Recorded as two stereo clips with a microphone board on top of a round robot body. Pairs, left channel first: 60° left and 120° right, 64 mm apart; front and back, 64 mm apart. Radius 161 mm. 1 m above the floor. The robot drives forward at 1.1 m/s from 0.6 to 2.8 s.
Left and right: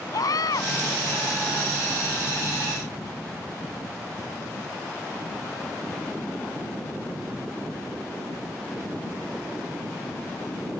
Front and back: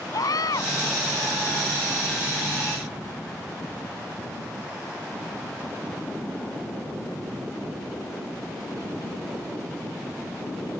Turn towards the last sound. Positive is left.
turn(degrees=35)